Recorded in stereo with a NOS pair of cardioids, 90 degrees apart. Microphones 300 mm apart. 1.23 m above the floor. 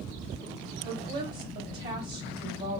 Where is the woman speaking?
35° right, 0.7 m.